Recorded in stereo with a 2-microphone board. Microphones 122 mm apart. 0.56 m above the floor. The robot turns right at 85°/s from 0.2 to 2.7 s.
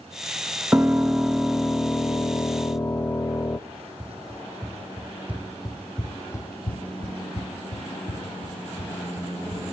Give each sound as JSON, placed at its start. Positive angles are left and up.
{"t": 0.7, "sound": "a piano", "side_deg": -15, "distance_m": 0.5}
{"t": 3.7, "sound": "running footsteps", "side_deg": -25, "distance_m": 3.0}